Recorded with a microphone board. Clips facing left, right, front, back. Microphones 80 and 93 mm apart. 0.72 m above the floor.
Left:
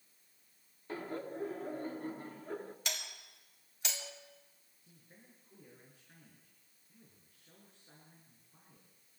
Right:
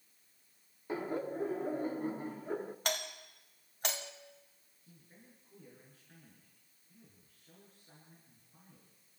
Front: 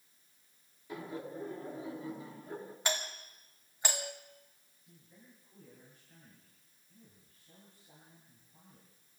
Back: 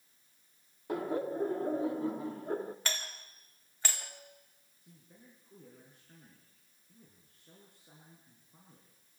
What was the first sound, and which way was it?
Laughter, 165° right.